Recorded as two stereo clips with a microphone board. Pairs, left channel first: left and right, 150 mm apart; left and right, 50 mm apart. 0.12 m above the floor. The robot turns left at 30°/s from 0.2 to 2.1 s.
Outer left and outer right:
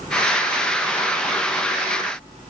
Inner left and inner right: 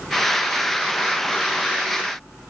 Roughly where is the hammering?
No hammering in this recording.